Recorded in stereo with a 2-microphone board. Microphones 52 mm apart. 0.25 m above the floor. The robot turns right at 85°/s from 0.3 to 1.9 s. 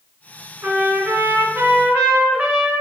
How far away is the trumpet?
About 2.5 m.